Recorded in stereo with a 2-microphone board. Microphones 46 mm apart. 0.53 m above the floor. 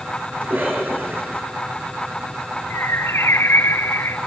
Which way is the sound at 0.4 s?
40° right (ahead or behind).